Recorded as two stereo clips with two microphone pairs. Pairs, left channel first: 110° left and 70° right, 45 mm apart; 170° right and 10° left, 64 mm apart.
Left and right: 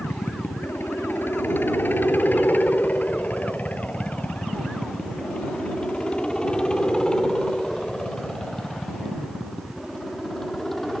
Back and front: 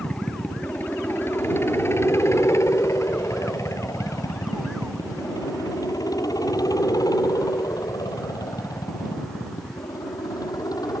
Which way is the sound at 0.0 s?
130° left.